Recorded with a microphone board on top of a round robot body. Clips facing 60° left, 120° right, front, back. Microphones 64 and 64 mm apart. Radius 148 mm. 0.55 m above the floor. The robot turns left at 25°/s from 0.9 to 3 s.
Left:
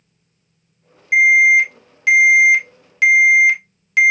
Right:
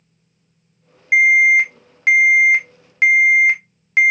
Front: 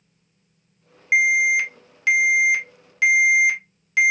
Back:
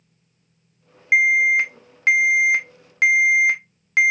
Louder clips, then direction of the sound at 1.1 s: Left 1 dB, back 2 dB; 125° right.